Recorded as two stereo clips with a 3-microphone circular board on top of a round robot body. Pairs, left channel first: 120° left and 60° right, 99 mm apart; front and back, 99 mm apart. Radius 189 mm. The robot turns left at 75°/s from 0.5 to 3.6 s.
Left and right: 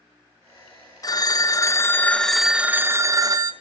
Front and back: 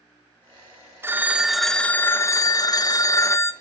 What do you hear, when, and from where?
1.0 s a phone ringing: 130° left, 0.6 m; by 3.5 s 55° right, 0.6 m